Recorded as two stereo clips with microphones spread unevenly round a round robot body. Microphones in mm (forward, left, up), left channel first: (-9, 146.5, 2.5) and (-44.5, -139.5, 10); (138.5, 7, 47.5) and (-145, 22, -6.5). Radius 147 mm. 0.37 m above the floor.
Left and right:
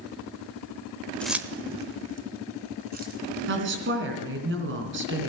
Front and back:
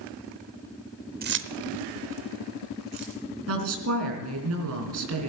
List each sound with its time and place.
1.2 s keys jangling: 165° left, 0.6 m; by 3.2 s 155° right, 2.5 m
3.5 s a woman speaking: 145° right, 3.5 m